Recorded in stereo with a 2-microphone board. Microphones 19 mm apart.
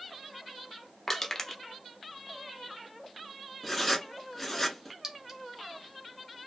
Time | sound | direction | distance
1.1 | crushing | 15° left (ahead or behind) | 0.5 m
3.6 | writing | 15° left (ahead or behind) | 0.8 m
5.0 | a clink | 25° right (ahead or behind) | 0.7 m